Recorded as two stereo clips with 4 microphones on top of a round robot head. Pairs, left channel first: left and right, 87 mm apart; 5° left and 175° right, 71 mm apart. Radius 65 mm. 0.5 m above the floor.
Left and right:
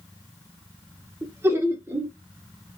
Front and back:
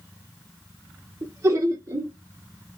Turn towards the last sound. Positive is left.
turn(degrees=-145)